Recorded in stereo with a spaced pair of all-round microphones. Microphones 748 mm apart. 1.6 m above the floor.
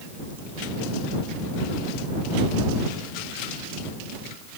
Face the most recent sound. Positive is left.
No sound to turn to.